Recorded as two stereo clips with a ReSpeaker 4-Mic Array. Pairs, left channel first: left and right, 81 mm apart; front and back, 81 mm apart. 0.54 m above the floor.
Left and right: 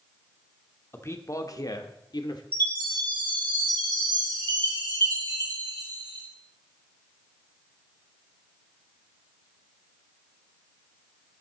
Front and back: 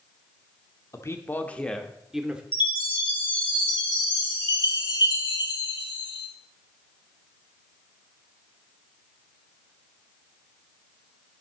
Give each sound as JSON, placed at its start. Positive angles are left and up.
{"t": 0.9, "sound": "a man speaking", "azimuth_deg": 40, "distance_m": 0.9}
{"t": 2.5, "sound": "a chime", "azimuth_deg": 25, "distance_m": 2.0}